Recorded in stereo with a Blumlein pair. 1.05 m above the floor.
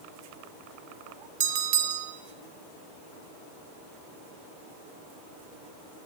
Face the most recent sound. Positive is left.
turn(degrees=-50)